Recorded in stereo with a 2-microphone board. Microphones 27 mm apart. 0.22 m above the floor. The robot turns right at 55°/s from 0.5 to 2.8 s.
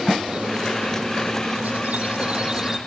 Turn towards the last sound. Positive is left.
turn(degrees=-15)